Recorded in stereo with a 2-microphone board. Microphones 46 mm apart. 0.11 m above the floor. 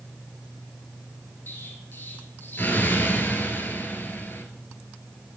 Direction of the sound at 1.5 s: 45° left (ahead or behind).